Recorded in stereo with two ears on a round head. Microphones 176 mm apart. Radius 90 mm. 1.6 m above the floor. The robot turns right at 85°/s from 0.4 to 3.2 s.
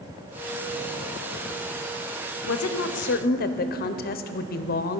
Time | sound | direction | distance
2.5 | a woman speaking | 65° left | 0.6 m